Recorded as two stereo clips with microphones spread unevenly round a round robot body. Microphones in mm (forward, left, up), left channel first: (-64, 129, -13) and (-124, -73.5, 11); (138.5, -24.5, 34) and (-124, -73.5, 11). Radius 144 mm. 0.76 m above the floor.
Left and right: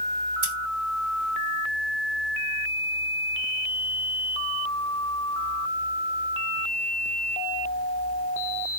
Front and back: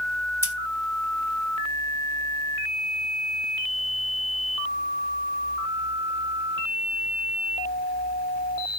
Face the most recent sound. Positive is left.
turn(degrees=-70)